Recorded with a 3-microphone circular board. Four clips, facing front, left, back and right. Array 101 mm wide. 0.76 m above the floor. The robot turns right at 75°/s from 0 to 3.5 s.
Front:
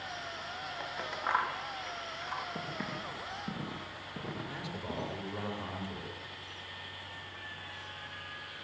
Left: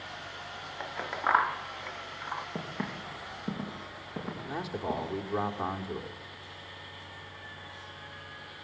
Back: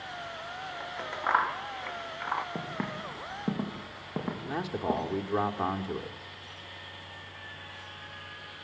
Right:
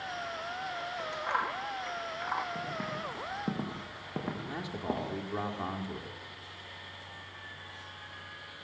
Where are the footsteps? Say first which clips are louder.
Right 1 dB, back 4 dB; 140° left, 5.5 m; by 5.1 s 145° right, 7 m.